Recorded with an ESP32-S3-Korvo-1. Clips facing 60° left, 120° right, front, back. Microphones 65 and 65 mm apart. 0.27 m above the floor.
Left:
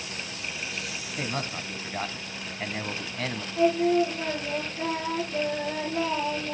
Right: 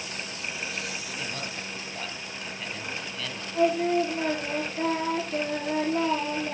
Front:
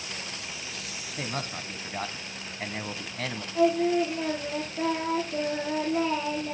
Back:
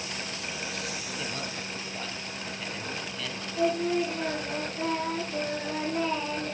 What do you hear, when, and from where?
1.2 s a man speaking: 30° left, 1.8 m
3.5 s singing: 70° right, 8.5 m